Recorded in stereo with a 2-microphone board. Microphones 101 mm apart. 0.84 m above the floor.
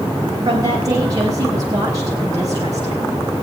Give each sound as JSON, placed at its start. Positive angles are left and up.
{"t": 0.5, "sound": "a woman speaking", "side_deg": -35, "distance_m": 4.0}